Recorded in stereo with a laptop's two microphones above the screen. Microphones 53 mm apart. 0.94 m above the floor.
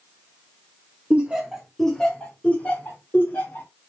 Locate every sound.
1.1 s laughter: 30° right (ahead or behind), 0.7 m; by 3.7 s 45° left (ahead or behind), 1.5 m